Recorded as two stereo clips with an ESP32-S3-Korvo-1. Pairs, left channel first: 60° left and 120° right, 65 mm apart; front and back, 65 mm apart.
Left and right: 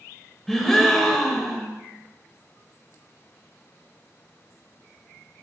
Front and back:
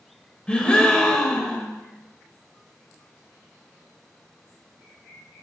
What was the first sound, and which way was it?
A gasp, 10° right.